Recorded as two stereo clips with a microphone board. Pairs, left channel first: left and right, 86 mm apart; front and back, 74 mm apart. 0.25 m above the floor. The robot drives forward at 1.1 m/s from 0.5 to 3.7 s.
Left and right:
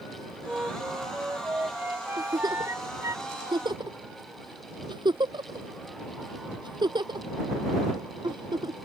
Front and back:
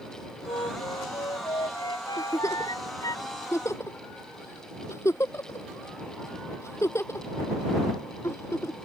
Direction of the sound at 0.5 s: 15° right.